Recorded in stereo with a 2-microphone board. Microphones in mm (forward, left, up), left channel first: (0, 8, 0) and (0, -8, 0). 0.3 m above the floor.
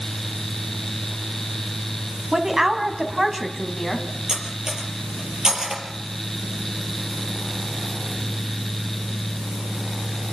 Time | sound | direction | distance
2.3 | a woman speaking | 50° right (ahead or behind) | 2.5 m
4.3 | cutlery clinking | 55° right (ahead or behind) | 4 m